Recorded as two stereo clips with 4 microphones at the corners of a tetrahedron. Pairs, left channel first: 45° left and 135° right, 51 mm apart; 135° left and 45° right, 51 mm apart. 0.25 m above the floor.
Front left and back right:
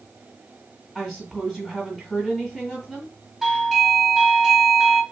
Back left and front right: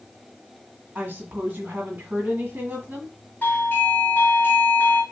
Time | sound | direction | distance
0.9 | a woman speaking | 60° right | 1.6 m
3.4 | a doorbell | 155° left | 1.8 m